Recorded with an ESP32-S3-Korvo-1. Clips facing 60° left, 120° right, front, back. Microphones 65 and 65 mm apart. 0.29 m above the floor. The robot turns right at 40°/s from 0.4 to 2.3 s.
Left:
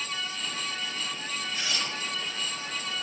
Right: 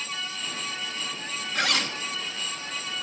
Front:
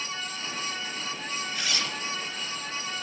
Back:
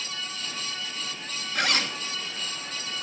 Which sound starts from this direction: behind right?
A zipper, at 1.6 s.